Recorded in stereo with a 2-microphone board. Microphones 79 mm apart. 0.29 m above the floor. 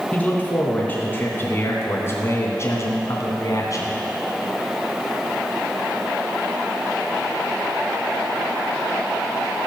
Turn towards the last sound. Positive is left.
turn(degrees=45)  # may be behind; listen again after turning